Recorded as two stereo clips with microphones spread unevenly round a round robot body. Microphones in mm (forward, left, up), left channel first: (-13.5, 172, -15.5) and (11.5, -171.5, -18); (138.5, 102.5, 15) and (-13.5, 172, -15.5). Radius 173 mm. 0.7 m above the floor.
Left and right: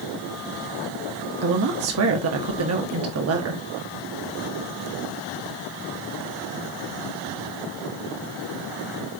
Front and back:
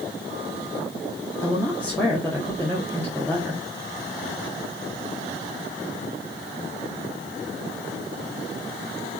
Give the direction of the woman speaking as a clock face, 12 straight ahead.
4 o'clock.